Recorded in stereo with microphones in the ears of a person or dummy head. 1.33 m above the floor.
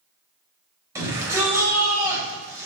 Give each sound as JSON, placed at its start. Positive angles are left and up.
{"t": 0.9, "sound": "a shout", "side_deg": -15, "distance_m": 6.5}